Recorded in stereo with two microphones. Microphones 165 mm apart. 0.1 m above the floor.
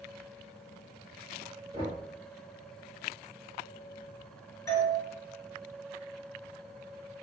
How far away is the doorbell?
About 1.5 m.